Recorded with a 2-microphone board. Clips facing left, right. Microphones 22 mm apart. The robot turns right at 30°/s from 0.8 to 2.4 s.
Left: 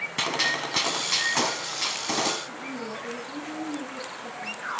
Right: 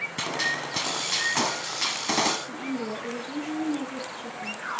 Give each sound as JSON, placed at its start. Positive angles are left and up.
{"t": 0.2, "sound": "a gunshot", "azimuth_deg": 160, "distance_m": 1.2}
{"t": 2.5, "sound": "a woman speaking", "side_deg": -40, "distance_m": 2.5}